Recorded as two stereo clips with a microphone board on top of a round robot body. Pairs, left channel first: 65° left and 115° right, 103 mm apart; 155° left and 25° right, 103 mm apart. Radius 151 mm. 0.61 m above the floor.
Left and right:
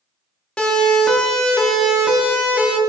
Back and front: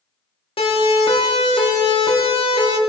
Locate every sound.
0.6 s a siren: 150° left, 4.5 m; by 2.8 s 170° left, 4.5 m